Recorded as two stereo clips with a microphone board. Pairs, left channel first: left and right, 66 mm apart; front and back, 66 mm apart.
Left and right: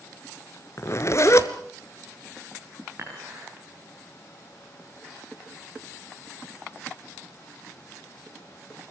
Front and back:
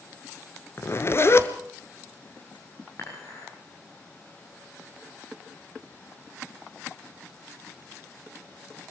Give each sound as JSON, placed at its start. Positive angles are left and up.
{"t": 0.8, "sound": "a zipper", "azimuth_deg": 45, "distance_m": 1.3}
{"t": 3.0, "sound": "dishes clattering", "azimuth_deg": -40, "distance_m": 9.0}